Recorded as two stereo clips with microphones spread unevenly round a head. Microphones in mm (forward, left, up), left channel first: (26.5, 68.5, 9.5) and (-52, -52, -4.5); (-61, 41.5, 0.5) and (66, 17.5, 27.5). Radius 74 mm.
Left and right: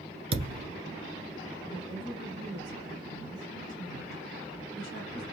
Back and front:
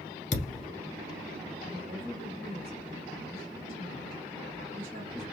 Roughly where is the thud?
Behind.